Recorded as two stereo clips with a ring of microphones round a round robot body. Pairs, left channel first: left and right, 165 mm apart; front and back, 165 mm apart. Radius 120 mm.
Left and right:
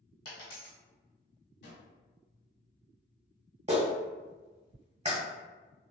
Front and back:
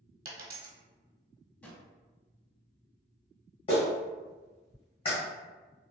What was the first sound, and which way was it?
A dropped coin, 145° left.